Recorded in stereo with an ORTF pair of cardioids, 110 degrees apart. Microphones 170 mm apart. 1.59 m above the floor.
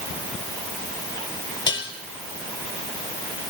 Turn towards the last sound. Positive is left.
turn(degrees=30)